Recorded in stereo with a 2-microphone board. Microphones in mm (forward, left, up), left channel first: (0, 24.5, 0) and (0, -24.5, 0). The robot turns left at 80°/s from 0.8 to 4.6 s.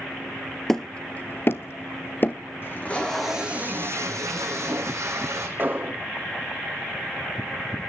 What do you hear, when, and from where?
0.7 s hammering: 5° left (ahead or behind), 0.8 m; by 2.4 s 35° left (ahead or behind), 0.8 m
2.6 s tape being pulled: 50° left, 4.5 m; by 5.5 s 110° right, 4.5 m
5.6 s an explosion: 40° right (ahead or behind), 2.5 m